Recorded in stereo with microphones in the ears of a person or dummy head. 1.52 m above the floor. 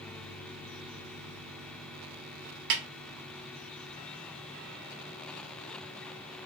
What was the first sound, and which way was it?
A snare drum, 55° right (ahead or behind).